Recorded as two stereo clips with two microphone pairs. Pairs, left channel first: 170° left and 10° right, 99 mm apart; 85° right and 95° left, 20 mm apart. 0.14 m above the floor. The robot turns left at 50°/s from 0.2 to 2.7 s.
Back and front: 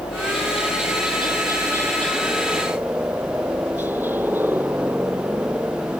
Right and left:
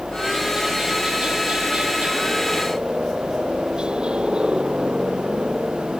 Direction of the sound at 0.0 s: 175° right.